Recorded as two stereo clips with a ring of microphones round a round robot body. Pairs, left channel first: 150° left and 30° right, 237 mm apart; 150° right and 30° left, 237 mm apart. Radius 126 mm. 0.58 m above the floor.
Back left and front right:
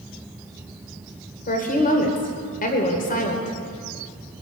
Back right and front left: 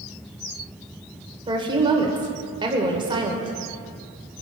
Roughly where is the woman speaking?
Left.